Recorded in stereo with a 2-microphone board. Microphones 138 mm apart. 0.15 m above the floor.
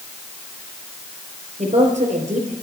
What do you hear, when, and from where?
1.6 s a woman speaking: 60° right (ahead or behind), 3.5 m